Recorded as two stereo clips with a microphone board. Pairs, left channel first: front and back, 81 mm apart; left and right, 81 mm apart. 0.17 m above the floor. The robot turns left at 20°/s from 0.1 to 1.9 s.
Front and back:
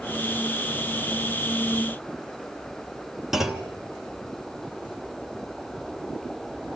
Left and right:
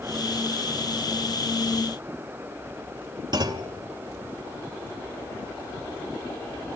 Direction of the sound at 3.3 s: 95° right.